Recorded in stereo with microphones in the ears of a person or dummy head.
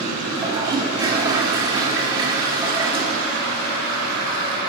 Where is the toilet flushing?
25° right (ahead or behind), 2.0 m.